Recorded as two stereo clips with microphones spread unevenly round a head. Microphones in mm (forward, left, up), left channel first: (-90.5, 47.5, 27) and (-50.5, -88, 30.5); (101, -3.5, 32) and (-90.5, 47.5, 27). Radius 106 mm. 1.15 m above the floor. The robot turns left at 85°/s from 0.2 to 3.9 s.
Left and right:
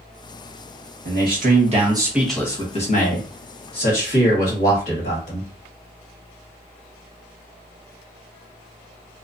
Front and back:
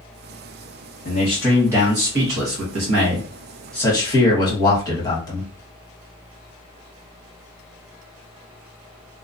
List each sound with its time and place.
1.1 s a man speaking: 60° right, 1.4 m; by 5.5 s 55° left, 1.4 m